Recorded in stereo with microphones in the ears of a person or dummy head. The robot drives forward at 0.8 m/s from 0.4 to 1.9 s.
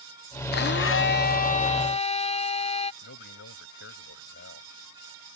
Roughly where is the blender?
Left.